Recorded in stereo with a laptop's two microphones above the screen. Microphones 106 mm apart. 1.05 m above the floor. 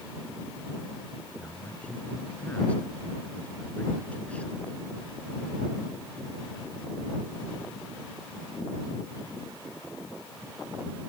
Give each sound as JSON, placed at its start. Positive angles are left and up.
{"t": 1.4, "sound": "a man speaking", "side_deg": 15}